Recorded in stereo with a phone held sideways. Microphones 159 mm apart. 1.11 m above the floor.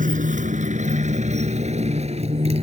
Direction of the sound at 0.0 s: 55° right (ahead or behind).